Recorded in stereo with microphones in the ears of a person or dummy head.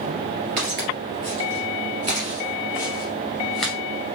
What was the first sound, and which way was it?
Footsteps, 40° right (ahead or behind).